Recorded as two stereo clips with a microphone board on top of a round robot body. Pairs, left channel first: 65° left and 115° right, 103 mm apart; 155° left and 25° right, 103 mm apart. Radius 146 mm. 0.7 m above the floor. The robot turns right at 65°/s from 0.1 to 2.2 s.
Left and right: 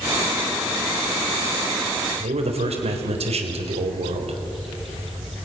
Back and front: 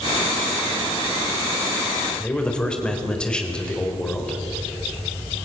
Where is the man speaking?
120° right, 4 m.